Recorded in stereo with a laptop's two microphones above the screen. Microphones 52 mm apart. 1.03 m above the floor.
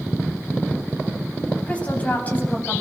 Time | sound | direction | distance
1.7 | a woman speaking | 25° left (ahead or behind) | 9 m